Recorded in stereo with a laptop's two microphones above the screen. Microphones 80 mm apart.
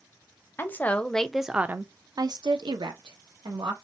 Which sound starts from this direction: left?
A woman speaking, at 0.6 s.